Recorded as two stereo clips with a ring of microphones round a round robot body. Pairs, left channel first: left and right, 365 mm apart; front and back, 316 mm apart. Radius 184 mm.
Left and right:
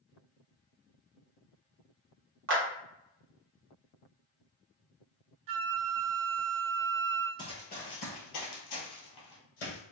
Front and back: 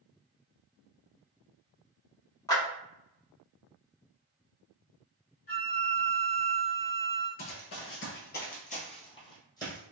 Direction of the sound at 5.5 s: 65° right.